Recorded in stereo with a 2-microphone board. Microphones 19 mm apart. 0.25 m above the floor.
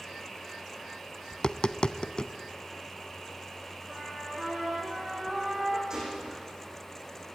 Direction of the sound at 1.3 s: 45° left (ahead or behind).